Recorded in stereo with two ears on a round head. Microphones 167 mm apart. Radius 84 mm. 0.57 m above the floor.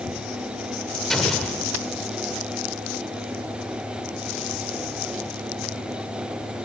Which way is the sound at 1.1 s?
Centre (ahead or behind).